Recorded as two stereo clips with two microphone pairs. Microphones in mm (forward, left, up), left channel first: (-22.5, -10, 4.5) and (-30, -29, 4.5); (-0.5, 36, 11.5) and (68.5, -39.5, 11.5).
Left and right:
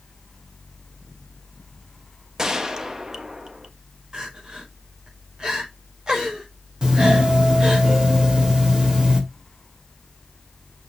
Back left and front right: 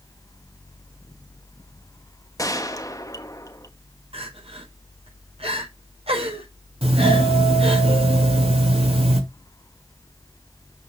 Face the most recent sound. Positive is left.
turn(degrees=-55)